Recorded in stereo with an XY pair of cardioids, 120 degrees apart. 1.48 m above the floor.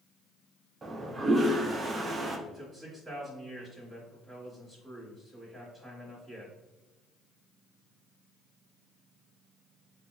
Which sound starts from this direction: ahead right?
A toilet flushing, at 0.8 s.